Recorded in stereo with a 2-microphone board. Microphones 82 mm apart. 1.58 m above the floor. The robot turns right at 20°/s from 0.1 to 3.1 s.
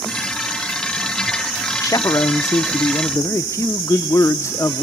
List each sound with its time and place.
1.8 s a man speaking: 45° left (ahead or behind), 0.6 m; by 4.8 s 35° left (ahead or behind), 0.6 m